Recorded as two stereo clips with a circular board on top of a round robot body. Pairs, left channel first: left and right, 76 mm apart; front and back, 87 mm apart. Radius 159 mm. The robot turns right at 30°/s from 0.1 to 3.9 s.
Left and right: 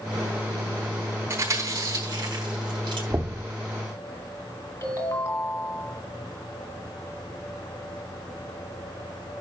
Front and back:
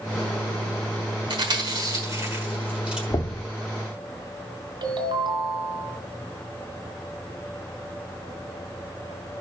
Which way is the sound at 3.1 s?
50° right.